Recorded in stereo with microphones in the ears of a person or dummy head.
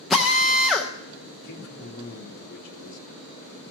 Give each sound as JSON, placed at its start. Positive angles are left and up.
{"t": 0.1, "sound": "a drill", "side_deg": 5, "distance_m": 0.6}
{"t": 1.4, "sound": "a man speaking", "side_deg": 60, "distance_m": 1.7}